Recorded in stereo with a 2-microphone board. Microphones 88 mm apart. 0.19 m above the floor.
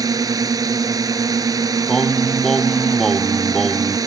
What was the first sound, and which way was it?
A drone, 45° right (ahead or behind).